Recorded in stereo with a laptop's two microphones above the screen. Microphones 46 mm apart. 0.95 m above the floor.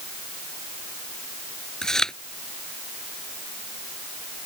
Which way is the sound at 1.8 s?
15° left (ahead or behind).